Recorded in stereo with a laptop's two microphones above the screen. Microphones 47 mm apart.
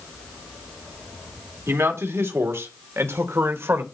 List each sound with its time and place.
1.7 s a man speaking: 80° right, 2.5 m; by 3.8 s 60° right (ahead or behind), 1.4 m